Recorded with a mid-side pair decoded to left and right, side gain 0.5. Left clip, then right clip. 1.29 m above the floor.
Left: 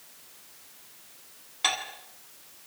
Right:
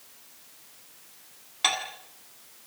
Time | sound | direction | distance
1.6 | dishes clattering | 20° right | 7.5 m